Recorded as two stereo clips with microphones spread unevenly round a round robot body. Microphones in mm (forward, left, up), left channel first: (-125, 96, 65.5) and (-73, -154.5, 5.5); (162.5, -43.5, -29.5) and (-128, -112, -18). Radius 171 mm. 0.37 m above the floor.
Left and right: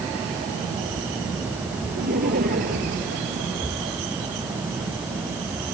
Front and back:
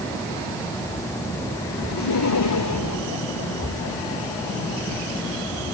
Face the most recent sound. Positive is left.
turn(degrees=-15)